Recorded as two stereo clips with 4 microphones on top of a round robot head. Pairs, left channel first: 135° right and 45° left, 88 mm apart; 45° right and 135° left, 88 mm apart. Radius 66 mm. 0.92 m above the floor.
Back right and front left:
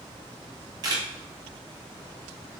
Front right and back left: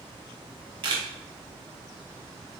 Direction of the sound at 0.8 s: 95° left.